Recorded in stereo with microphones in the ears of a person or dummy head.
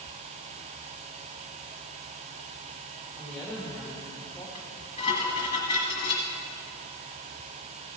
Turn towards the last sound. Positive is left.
turn(degrees=25)  # may be behind; listen again after turning